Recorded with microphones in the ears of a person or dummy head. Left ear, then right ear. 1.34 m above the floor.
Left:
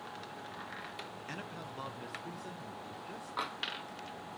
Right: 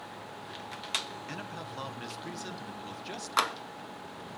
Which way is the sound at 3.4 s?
70° right (ahead or behind).